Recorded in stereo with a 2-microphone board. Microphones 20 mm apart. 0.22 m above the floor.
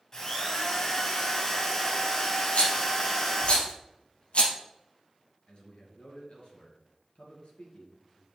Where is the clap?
I don't hear a clap.